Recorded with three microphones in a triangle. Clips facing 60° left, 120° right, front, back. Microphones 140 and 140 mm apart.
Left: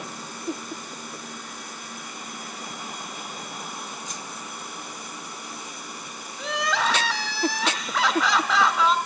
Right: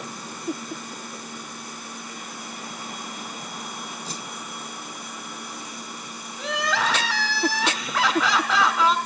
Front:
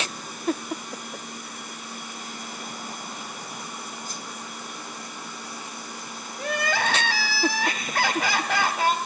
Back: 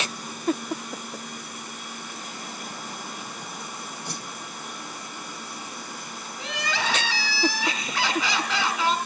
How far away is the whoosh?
About 0.8 m.